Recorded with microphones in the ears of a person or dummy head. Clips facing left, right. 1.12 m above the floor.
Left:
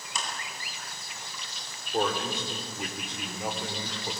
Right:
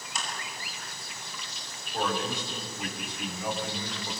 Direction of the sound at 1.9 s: 20° left (ahead or behind).